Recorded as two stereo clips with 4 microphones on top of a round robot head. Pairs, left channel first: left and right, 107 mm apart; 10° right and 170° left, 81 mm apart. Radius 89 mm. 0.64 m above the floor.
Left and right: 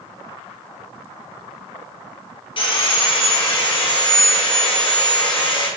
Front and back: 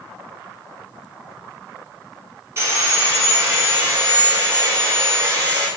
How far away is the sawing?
About 1.3 m.